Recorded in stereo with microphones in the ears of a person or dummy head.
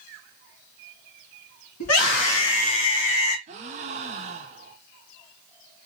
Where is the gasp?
40° right (ahead or behind), 0.6 m.